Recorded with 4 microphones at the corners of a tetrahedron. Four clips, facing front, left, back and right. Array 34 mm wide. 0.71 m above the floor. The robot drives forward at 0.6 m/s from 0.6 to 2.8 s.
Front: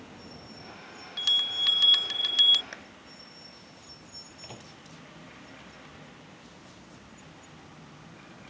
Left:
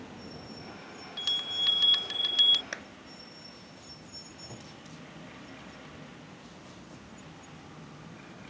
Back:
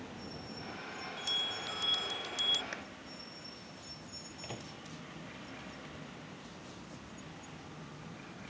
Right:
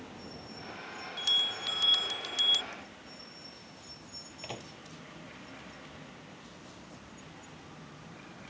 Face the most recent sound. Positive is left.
turn(degrees=-95)